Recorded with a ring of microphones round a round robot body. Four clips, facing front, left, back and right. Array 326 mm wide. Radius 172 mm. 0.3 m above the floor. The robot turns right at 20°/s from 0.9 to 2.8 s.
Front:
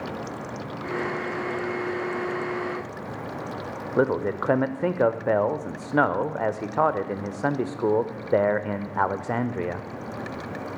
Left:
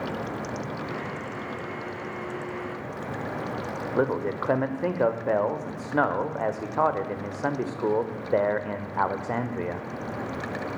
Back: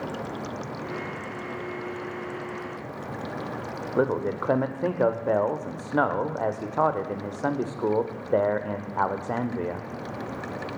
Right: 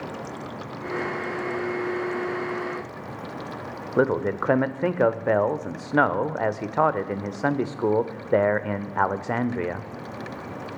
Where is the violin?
I don't hear a violin.